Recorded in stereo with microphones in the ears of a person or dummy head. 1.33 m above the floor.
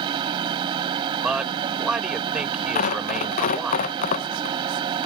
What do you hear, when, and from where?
0.0 s a machine running: 30° right (ahead or behind)
1.2 s a man speaking: centre (ahead or behind)
2.8 s tearing paper: 45° left (ahead or behind)